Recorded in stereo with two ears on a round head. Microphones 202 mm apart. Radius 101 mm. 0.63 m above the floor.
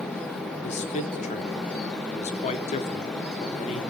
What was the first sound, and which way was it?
A man speaking, 30° left (ahead or behind).